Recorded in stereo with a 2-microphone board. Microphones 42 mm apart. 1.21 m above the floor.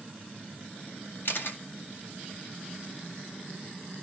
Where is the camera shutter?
55° left (ahead or behind), 2 m.